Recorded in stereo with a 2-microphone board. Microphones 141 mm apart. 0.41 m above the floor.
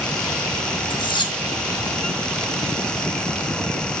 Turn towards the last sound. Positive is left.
turn(degrees=35)  # may be behind; listen again after turning